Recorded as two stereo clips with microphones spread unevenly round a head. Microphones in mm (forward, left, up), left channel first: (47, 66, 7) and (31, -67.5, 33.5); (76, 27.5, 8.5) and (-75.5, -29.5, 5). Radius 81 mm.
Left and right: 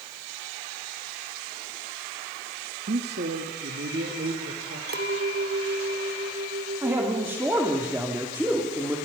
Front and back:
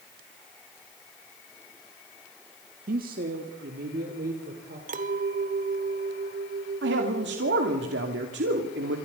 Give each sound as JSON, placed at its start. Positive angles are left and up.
{"t": 2.9, "sound": "a man speaking", "azimuth_deg": -125, "distance_m": 1.5}
{"t": 4.9, "sound": "a clink", "azimuth_deg": -115, "distance_m": 1.7}
{"t": 6.8, "sound": "a man speaking", "azimuth_deg": -175, "distance_m": 2.5}